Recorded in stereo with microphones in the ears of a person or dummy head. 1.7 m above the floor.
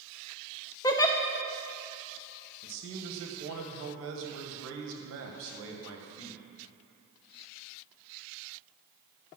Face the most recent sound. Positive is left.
turn(degrees=-75)  # may be behind; listen again after turning